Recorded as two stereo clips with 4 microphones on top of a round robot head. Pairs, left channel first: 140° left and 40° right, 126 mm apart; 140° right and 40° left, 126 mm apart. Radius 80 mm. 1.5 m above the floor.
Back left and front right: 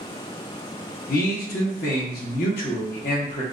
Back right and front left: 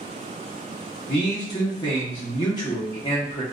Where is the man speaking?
155° left, 0.8 m.